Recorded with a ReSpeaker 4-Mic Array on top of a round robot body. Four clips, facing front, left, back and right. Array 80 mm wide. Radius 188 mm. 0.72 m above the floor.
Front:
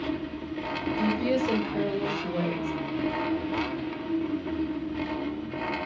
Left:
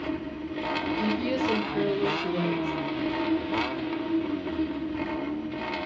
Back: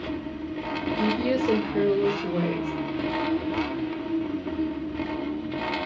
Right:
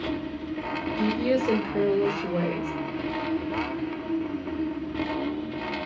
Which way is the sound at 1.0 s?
115° right.